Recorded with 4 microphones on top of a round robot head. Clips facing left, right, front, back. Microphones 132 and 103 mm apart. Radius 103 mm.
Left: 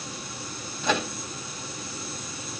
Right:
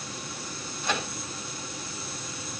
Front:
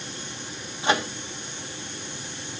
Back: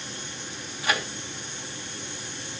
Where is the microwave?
60° left, 1.8 m.